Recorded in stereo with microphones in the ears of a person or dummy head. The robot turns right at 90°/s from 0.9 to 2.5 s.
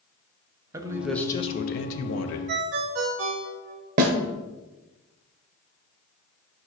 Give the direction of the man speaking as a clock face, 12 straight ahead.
1 o'clock.